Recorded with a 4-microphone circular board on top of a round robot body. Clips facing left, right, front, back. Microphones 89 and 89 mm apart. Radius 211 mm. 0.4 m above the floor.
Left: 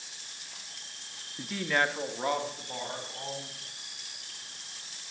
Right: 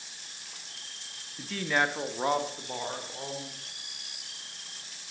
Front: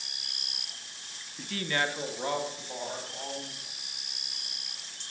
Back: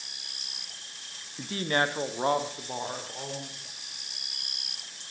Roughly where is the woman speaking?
Behind left.